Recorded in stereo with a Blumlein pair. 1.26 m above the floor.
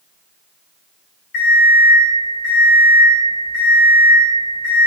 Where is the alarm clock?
45° left, 1.1 m.